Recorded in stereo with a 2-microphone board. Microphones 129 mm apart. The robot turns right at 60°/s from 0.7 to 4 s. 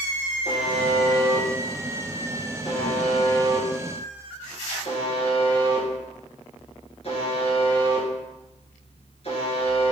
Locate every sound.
0.5 s a buzzer: 65° right (ahead or behind), 2.5 m; by 9.9 s 55° left (ahead or behind), 2.5 m